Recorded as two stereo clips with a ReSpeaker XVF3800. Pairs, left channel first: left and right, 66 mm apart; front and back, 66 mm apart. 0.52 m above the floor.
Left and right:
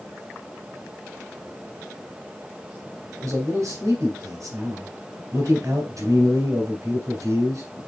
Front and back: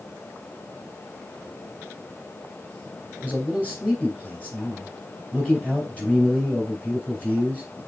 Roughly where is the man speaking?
Ahead right.